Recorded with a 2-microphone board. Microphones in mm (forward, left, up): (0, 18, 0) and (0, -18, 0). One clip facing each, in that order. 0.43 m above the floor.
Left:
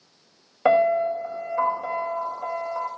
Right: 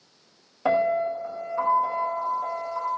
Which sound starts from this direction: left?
A piano, at 0.7 s.